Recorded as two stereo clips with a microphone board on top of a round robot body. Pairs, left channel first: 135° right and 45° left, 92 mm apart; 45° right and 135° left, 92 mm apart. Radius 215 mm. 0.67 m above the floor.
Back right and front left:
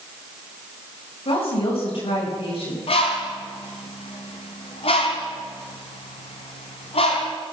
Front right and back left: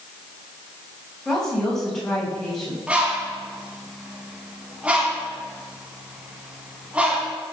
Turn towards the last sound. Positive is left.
turn(degrees=-145)